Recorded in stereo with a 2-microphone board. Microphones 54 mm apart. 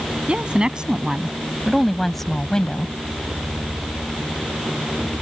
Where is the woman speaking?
20° right (ahead or behind); by 2.9 s 20° left (ahead or behind).